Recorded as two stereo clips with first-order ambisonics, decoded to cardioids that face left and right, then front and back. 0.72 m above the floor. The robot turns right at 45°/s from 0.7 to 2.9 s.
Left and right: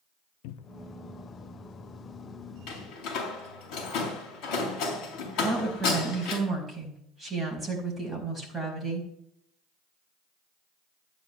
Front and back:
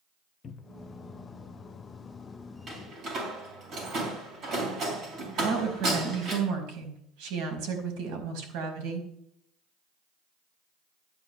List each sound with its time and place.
0.4 s a cupboard door: 65° left, 0.5 m; by 0.9 s 75° left, 0.5 m
2.7 s a door slam: 115° left, 4.5 m; by 6.4 s 125° left, 4.5 m
5.4 s a woman speaking: straight behind, 4.5 m